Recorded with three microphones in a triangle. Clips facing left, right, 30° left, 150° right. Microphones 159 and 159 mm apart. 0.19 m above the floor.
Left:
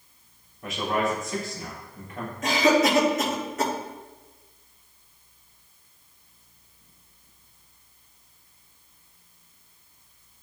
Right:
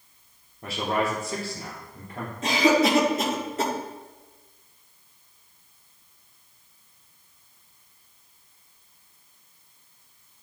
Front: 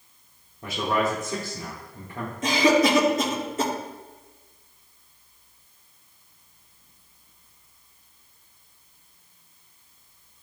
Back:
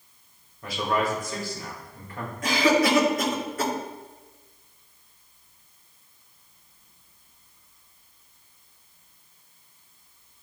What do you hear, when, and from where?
0.6 s a man speaking: 35° right, 3.5 m
2.4 s a cough: 35° right, 3 m